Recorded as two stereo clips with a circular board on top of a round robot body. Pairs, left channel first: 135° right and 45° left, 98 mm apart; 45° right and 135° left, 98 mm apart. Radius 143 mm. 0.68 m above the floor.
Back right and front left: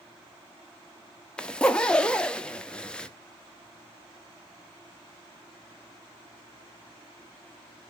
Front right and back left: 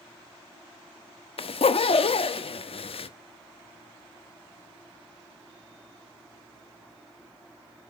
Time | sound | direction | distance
1.4 | a zipper | 55° right | 0.8 m